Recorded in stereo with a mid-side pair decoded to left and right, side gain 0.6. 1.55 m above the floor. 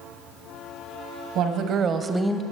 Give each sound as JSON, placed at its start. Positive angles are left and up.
{"t": 1.4, "sound": "a woman speaking", "azimuth_deg": -65, "distance_m": 1.2}